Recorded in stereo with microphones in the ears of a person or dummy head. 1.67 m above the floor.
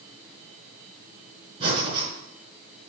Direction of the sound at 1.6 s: 30° right (ahead or behind).